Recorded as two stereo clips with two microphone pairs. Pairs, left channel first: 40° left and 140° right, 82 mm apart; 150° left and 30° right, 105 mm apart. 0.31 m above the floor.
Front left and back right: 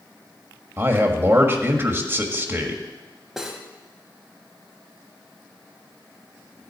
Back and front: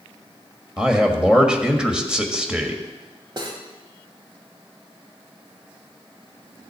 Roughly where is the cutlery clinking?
Ahead right.